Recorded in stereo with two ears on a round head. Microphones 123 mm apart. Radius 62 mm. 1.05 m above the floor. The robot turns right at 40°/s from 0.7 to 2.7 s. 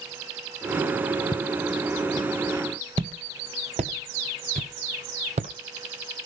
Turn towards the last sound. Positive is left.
turn(degrees=-50)  # may be behind; listen again after turning